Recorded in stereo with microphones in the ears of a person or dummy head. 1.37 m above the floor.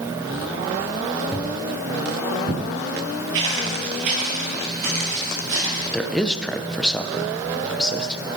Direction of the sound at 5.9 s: 5° left (ahead or behind).